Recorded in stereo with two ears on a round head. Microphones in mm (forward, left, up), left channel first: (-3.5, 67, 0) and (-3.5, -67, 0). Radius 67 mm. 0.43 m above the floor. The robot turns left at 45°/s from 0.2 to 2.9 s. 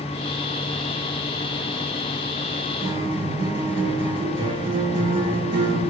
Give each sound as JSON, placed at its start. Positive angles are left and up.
{"t": 2.8, "sound": "a guitar", "side_deg": -40, "distance_m": 3.5}